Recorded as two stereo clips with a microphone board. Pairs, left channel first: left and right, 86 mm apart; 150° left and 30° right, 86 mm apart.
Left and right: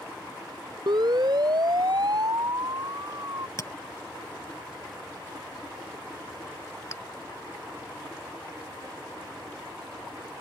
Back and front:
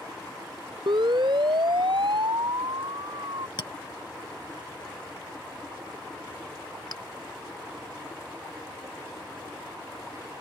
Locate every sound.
0.9 s a siren: 55° right; by 3.5 s 45° right
3.6 s a clink: 140° left